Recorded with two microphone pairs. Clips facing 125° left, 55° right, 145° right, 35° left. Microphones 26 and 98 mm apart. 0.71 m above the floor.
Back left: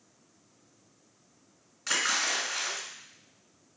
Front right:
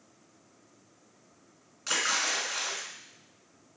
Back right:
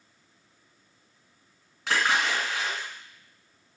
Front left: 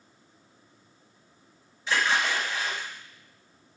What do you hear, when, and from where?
1.9 s a splash: 140° right, 3 m